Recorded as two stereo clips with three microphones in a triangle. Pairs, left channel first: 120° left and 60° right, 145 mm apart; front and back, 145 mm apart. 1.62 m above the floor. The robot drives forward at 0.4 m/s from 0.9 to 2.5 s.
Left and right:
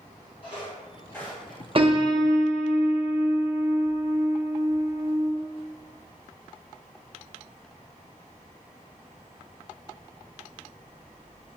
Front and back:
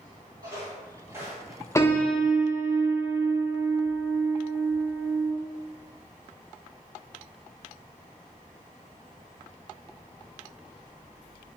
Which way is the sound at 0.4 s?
130° left.